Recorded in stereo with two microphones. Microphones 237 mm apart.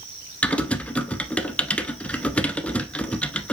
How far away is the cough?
I don't hear a cough.